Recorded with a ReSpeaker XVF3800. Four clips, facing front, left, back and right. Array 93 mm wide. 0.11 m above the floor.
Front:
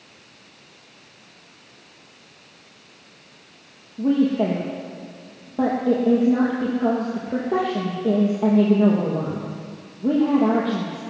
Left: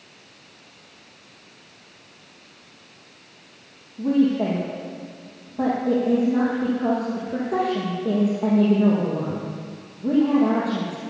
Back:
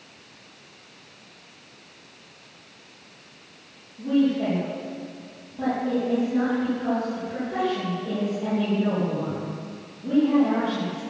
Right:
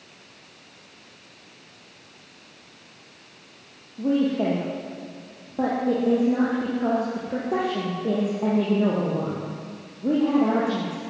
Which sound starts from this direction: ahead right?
A woman speaking, at 4.0 s.